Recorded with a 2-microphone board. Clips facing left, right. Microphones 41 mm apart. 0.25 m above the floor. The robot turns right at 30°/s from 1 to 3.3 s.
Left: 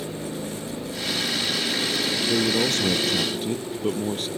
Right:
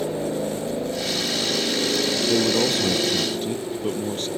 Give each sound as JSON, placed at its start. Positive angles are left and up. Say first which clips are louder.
{"t": 0.0, "sound": "a helicopter", "louder": "right 6 dB", "azimuth_deg": -100}
{"t": 2.3, "sound": "a man speaking", "louder": "right 2 dB", "azimuth_deg": -25}